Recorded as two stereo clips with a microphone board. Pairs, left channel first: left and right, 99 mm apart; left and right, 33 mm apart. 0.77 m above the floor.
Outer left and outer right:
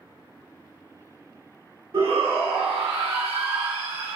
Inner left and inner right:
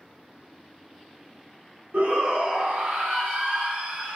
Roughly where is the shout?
Right.